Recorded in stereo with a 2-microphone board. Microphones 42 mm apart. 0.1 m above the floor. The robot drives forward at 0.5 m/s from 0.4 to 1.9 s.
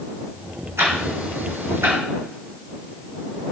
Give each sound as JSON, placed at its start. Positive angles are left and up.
{"t": 0.8, "sound": "ticking", "side_deg": -75, "distance_m": 3.0}